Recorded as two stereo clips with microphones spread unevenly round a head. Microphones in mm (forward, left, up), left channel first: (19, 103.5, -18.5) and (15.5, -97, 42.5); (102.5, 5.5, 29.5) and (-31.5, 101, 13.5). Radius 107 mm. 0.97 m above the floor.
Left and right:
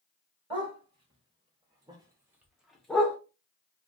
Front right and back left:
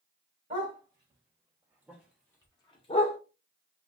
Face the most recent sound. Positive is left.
turn(degrees=-5)